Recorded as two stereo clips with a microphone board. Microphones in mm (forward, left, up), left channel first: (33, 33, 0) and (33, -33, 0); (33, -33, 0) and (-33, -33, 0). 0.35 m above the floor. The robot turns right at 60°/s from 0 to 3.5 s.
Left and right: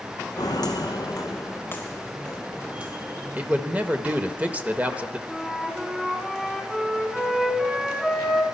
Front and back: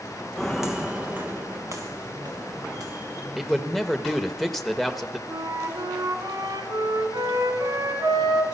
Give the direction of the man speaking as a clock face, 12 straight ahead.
3 o'clock.